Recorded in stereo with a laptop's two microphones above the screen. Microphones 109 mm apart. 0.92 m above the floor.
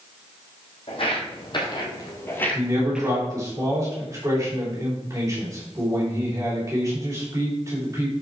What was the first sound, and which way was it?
Footsteps, 55° left (ahead or behind).